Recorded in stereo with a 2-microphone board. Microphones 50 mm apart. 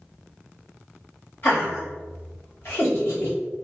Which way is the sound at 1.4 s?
45° left (ahead or behind).